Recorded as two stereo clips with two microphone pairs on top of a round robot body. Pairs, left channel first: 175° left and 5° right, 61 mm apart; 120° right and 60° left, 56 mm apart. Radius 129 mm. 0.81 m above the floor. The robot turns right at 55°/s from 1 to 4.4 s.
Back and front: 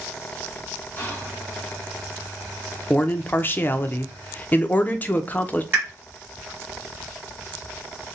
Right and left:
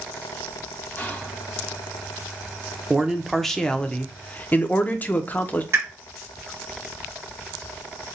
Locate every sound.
1.0 s whispering: 155° right, 1.1 m; by 1.4 s 135° right, 1.1 m
2.9 s a man speaking: 125° left, 0.6 m; by 5.6 s 150° right, 0.6 m
5.7 s a pop: 45° left, 2 m